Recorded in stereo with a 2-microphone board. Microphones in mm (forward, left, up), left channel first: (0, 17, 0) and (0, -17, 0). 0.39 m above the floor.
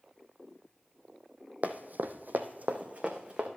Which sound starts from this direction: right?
Running footsteps, at 1.6 s.